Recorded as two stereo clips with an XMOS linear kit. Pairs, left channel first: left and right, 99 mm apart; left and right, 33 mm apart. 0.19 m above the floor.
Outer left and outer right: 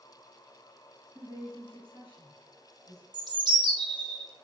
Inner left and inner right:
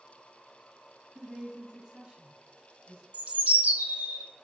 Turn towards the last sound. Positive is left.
turn(degrees=-45)  # may be behind; listen again after turning